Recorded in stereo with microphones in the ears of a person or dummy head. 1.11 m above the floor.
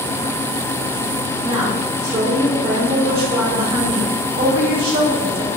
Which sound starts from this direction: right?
A woman speaking, at 1.4 s.